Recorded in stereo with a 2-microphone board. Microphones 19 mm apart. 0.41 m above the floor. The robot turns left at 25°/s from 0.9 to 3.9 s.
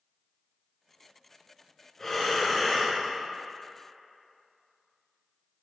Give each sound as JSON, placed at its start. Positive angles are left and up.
{"t": 2.0, "sound": "breathing", "side_deg": 30, "distance_m": 2.0}